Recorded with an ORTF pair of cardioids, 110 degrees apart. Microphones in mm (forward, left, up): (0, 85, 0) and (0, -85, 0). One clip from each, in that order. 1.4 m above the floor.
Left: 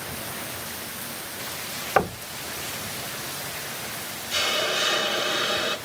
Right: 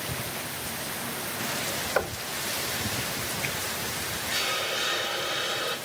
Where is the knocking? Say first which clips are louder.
Left 7 dB; 50° left, 1.4 m.